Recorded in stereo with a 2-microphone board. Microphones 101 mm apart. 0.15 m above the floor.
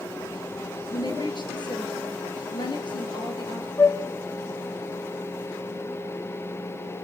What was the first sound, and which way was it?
A woman speaking, 50° left (ahead or behind).